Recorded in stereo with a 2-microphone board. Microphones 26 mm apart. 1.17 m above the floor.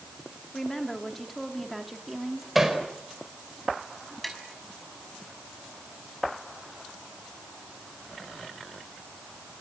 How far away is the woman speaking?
About 3 m.